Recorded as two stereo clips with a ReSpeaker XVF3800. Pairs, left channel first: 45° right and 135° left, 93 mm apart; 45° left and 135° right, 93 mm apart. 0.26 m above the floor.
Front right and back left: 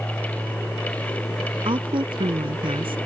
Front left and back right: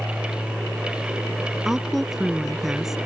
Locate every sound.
1.6 s a woman speaking: 140° left